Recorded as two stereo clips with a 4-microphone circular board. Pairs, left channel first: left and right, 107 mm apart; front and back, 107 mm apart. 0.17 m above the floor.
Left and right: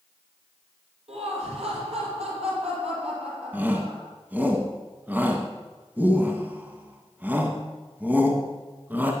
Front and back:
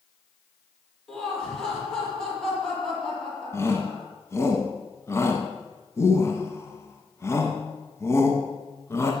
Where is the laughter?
85° right, 6.5 m.